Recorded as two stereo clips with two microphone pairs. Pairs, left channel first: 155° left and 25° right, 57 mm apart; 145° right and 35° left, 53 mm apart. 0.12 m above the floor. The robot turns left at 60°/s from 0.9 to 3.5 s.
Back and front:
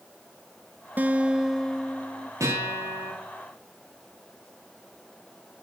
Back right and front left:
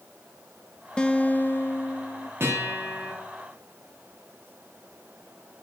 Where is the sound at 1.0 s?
75° right, 0.7 m; by 2.3 s 155° right, 0.7 m.